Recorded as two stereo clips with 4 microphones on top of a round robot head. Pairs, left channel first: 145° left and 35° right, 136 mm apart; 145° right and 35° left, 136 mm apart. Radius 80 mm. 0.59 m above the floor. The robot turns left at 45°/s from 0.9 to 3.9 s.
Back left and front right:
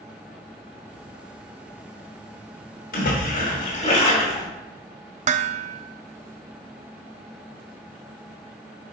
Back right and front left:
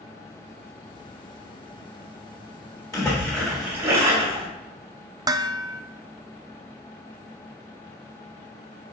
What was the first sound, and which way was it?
A splash, 145° left.